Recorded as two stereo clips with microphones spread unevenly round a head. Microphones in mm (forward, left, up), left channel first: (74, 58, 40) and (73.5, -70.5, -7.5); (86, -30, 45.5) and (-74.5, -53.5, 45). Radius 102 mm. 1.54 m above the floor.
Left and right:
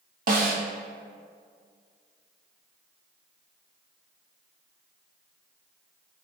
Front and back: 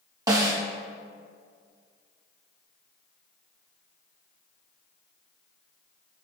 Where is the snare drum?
110° right, 1.1 m.